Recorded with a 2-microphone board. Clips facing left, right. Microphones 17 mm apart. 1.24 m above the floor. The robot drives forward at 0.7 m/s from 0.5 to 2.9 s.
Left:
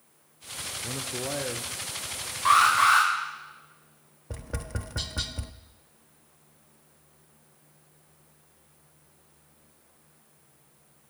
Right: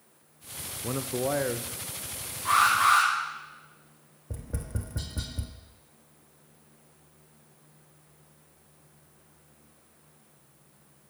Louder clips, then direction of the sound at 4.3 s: Left 2 dB; 40° left (ahead or behind).